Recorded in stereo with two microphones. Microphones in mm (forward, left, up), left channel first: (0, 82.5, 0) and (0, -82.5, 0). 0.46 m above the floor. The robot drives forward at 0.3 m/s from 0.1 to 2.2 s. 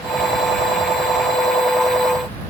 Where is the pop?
No pop in this recording.